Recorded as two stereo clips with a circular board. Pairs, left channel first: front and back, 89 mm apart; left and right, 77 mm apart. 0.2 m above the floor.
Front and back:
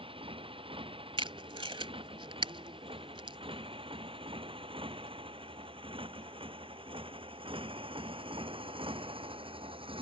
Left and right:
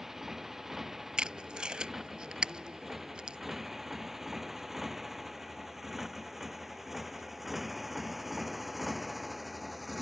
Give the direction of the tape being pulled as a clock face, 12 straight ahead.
6 o'clock.